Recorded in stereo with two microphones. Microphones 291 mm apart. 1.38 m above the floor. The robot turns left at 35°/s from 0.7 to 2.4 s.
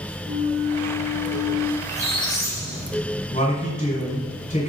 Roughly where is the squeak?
Left.